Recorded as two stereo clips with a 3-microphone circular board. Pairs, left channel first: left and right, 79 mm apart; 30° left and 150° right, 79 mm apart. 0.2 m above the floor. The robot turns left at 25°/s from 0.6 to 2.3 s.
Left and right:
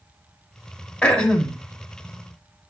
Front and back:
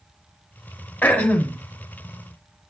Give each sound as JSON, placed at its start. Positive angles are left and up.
{"t": 1.0, "sound": "throat clearing", "azimuth_deg": 40, "distance_m": 1.4}